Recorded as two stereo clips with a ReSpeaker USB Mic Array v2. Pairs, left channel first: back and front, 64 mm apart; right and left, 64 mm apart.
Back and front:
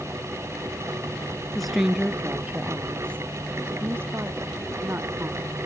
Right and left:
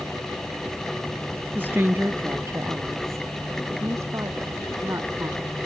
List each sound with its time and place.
1.6 s a woman speaking: 100° left; by 5.5 s 45° left